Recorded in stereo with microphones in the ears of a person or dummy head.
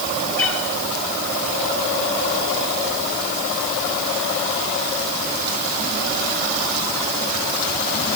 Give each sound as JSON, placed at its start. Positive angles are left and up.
{"t": 0.4, "sound": "a cat meowing", "side_deg": 10, "distance_m": 7.5}